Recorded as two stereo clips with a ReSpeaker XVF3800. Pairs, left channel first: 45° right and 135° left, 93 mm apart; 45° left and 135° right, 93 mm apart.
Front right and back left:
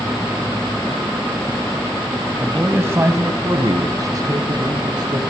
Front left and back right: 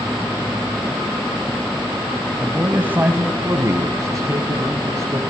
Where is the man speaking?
175° left, 1.0 m; by 5.2 s 170° left, 2.5 m.